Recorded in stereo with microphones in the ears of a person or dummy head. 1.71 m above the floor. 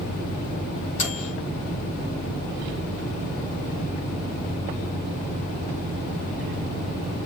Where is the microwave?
40° left (ahead or behind), 3.5 m.